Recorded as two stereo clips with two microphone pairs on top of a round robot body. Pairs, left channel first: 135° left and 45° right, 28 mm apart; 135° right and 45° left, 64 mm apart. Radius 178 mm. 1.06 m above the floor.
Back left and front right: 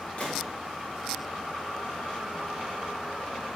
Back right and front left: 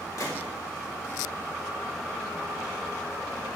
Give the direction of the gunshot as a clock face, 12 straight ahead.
6 o'clock.